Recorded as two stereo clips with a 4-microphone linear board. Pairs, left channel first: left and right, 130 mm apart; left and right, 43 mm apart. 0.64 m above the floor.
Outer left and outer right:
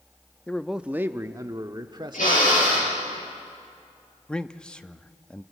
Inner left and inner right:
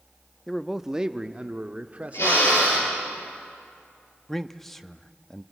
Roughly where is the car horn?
I don't hear a car horn.